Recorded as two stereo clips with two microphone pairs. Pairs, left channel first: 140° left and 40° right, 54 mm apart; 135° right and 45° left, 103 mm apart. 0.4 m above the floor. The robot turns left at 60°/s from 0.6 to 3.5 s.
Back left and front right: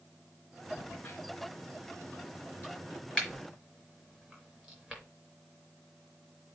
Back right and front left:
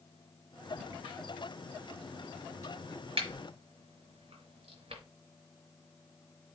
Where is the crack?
150° right, 4 m; by 5.0 s 45° left, 4 m.